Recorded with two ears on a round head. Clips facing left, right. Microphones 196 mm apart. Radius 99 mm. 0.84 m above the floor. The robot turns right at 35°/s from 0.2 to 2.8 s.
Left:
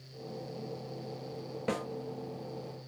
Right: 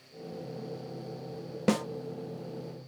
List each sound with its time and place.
1.7 s a snare drum: 55° right (ahead or behind), 0.6 m; by 1.9 s 60° right (ahead or behind), 0.6 m